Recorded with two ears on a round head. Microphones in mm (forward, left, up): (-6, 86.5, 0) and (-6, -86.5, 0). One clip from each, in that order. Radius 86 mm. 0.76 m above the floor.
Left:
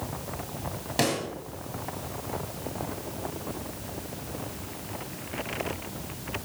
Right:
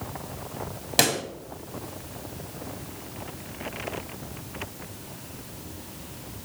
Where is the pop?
50° right (ahead or behind), 1.9 m.